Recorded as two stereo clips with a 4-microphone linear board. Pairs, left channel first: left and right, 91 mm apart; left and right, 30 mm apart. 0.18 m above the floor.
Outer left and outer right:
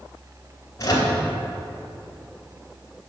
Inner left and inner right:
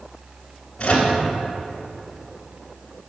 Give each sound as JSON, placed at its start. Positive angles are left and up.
{"t": 0.8, "sound": "a microwave", "side_deg": 40, "distance_m": 1.6}